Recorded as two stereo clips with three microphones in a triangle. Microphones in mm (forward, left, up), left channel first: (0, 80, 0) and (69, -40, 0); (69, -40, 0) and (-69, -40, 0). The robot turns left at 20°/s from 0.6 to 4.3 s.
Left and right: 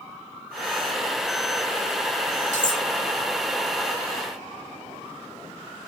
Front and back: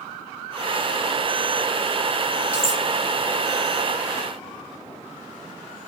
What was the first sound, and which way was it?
Cutlery clinking, 100° left.